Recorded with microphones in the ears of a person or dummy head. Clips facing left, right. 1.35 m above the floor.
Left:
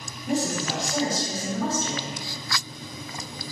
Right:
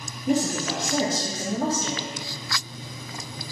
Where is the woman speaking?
85° right, 2.0 m; by 2.1 s 25° right (ahead or behind), 1.5 m.